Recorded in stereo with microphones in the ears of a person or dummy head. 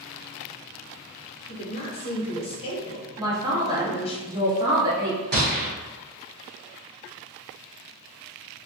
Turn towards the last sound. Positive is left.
turn(degrees=-50)  # may be behind; listen again after turning